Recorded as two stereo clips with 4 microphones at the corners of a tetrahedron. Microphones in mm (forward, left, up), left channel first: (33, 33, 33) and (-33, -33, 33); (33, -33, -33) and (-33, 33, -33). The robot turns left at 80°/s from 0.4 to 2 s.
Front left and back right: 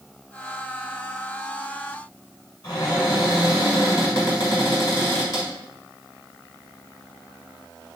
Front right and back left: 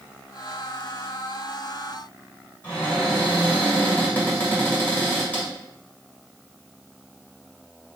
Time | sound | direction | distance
2.6 | a cupboard door | 20° left | 2.0 m